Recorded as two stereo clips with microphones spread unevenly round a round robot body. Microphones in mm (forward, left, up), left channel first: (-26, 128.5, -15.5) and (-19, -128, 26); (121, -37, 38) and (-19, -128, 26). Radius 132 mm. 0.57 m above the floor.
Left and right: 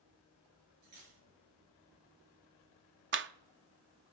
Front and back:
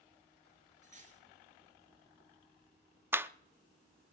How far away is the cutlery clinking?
About 6 m.